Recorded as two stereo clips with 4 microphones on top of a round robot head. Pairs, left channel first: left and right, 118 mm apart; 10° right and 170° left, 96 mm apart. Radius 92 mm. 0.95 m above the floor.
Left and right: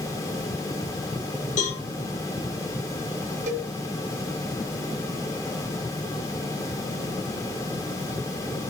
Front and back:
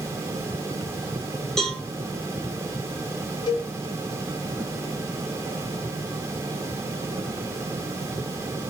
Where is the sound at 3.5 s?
65° right, 1.0 m.